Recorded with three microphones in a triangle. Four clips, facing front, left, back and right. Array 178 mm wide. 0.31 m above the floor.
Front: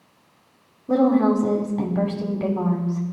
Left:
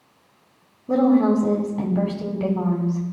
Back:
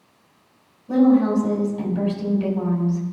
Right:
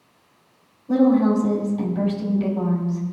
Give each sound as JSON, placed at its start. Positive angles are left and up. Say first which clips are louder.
{"t": 0.9, "sound": "a woman speaking", "louder": "even, back 1 dB", "azimuth_deg": 45, "distance_m": 1.4}